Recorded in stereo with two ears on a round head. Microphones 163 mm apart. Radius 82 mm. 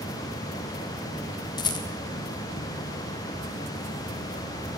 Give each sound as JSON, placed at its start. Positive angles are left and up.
{"t": 1.6, "sound": "a rattle", "side_deg": 25, "distance_m": 2.5}